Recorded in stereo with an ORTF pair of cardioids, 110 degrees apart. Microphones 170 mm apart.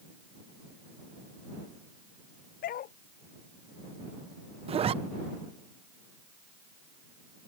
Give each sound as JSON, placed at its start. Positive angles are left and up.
{"t": 2.6, "sound": "a dog barking", "azimuth_deg": 60}
{"t": 4.7, "sound": "a zipper", "azimuth_deg": -35}